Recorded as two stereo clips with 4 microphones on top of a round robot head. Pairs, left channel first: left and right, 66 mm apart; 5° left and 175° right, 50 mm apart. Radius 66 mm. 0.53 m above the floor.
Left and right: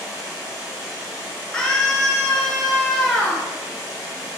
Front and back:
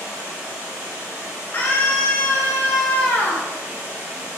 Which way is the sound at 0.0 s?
155° right.